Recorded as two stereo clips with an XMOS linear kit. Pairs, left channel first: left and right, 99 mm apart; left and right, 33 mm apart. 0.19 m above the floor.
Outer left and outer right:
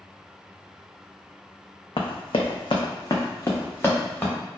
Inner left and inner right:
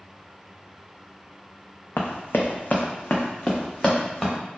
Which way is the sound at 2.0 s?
70° left (ahead or behind).